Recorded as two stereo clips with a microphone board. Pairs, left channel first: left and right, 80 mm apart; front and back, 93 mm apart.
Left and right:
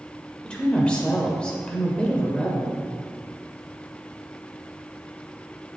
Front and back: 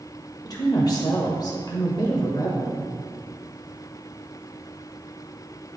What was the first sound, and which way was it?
A woman speaking, 20° left.